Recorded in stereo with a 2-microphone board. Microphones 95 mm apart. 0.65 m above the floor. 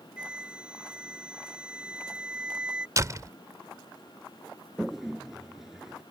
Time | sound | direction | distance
0.2 | a flute | 10° right (ahead or behind) | ?
3.0 | a door slam | 35° right (ahead or behind) | ?
4.8 | a toilet flushing | 5° right (ahead or behind) | ?